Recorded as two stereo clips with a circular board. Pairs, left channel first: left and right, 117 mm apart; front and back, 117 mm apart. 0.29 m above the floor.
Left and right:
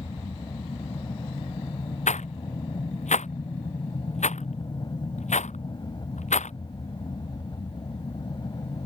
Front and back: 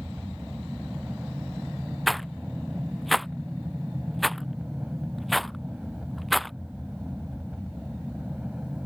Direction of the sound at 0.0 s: 100° left.